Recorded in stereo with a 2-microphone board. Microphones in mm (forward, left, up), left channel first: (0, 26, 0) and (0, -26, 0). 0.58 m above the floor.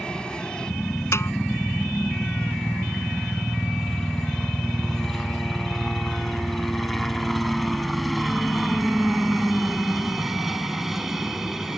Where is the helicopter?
15° left (ahead or behind); by 11.8 s 5° right (ahead or behind).